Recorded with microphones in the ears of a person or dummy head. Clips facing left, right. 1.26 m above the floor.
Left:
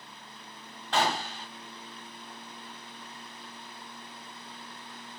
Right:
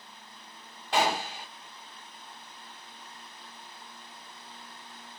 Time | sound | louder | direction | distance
0.9 | a gunshot | right 1 dB | 10° right (ahead or behind) | 1.3 m